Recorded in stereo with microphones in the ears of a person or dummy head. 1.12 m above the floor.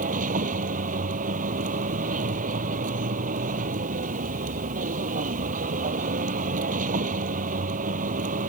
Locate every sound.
0.0 s a vehicle: 45° right (ahead or behind)